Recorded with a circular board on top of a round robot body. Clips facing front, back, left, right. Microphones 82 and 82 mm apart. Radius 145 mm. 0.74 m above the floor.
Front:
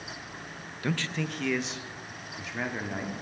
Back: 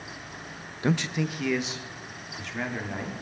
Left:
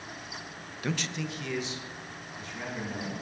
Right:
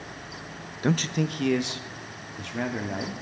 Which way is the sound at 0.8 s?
125° right.